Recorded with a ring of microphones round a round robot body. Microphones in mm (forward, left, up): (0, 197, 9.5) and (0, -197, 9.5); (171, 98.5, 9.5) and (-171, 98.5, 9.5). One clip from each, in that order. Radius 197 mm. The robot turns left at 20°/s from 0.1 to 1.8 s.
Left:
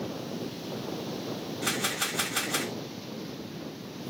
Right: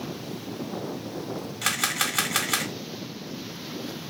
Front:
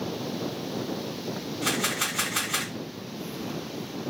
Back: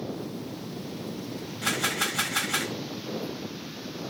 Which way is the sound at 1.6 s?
90° right.